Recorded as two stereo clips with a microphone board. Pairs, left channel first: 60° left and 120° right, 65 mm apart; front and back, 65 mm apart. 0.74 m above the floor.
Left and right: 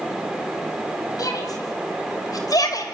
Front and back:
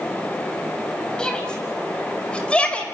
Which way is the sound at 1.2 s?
75° left.